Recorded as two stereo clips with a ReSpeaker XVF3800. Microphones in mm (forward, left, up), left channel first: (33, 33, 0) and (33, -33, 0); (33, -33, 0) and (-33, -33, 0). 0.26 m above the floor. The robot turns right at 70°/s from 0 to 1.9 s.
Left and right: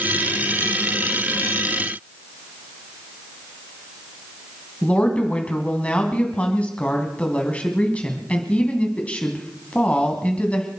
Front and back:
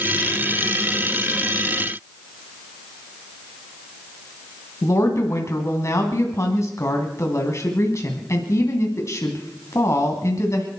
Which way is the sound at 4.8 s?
25° left.